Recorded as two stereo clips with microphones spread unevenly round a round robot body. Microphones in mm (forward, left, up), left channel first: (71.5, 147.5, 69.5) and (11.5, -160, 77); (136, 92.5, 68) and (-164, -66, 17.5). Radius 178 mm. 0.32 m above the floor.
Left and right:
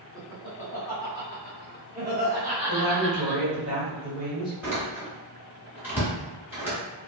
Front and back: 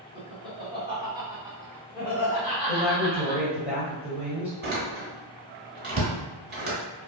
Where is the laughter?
165° left, 1.4 m; by 3.4 s 70° right, 1.7 m.